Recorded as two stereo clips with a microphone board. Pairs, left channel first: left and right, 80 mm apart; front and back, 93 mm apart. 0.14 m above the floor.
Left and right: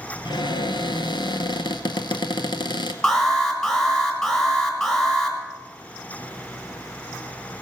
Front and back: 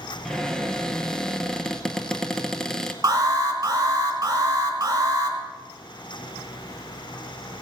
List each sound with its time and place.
0.2 s a cupboard door: 85° left, 0.8 m
3.0 s an alarm: 165° left, 2 m